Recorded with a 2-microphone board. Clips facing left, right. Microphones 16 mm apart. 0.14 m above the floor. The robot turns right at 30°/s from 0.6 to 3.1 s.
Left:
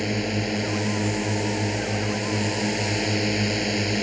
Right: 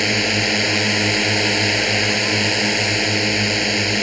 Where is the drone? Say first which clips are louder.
Right 8 dB; 120° right; by 4.0 s 45° right.